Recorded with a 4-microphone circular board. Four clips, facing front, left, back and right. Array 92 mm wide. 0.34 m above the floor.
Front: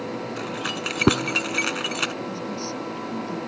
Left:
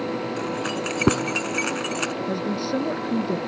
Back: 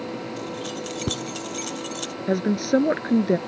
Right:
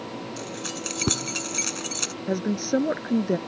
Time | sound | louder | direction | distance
0.4 | keys jangling | left 8 dB, front 2 dB | 35° left | ?
2.3 | a woman speaking | right 5 dB, back 9 dB | 165° right | ?